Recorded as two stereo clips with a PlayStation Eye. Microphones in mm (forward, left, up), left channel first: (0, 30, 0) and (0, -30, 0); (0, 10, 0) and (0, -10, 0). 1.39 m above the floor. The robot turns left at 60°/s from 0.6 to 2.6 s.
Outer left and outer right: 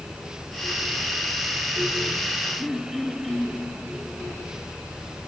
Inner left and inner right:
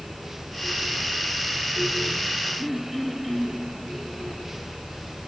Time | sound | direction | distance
2.6 | throat clearing | 10° right (ahead or behind) | 4 m